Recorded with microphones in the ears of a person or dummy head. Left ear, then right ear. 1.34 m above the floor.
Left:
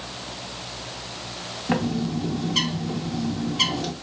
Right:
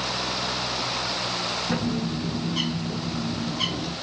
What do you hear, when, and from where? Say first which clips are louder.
1.7 s a bird: left 1 dB; 40° left (ahead or behind), 0.7 m